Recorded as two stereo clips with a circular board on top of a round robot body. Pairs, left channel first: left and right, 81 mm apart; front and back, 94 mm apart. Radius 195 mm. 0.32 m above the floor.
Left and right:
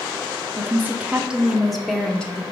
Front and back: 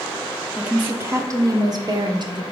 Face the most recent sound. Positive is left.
turn(degrees=165)